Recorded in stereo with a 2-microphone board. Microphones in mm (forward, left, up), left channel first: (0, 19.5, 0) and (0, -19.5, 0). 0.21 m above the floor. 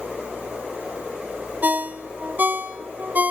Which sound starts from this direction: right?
A ringtone, at 1.6 s.